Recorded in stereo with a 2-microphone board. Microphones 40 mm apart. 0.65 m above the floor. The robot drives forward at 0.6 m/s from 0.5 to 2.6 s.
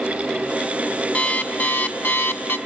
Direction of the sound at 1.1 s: 40° left (ahead or behind).